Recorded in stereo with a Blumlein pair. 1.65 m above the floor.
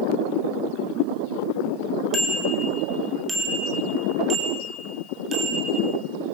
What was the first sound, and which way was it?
A bicycle bell, 10° left.